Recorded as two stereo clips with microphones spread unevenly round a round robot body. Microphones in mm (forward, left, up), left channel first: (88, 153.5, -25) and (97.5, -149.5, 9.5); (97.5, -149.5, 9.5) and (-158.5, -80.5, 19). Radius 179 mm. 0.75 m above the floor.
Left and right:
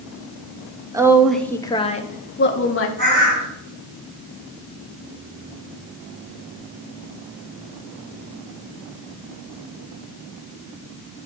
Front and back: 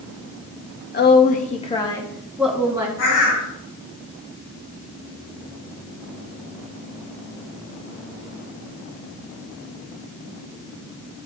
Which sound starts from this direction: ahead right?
A bird, at 3.0 s.